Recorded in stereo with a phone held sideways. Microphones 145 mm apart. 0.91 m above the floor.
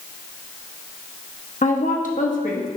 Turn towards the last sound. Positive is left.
turn(degrees=60)  # may be behind; listen again after turning